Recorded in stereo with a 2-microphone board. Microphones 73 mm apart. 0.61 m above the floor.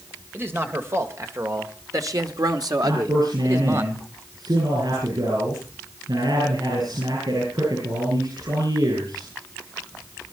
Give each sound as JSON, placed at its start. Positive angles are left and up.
{"t": 0.3, "sound": "a man speaking", "side_deg": -30, "distance_m": 2.5}
{"t": 2.8, "sound": "a man speaking", "side_deg": -70, "distance_m": 9.5}